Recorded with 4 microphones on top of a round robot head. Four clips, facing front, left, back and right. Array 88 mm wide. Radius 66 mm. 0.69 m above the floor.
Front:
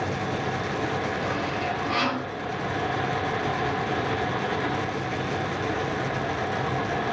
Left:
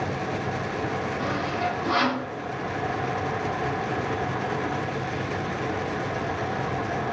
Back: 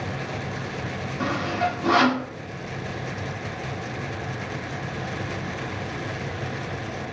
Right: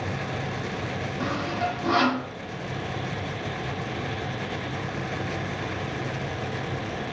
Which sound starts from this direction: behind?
Sawing, at 1.2 s.